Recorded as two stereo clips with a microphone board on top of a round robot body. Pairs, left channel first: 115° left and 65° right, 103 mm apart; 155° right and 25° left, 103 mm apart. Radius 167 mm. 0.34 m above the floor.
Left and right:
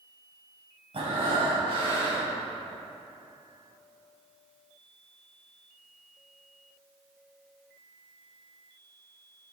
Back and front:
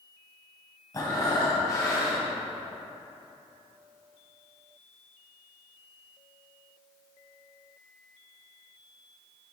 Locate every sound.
0.9 s breathing: 100° right, 3 m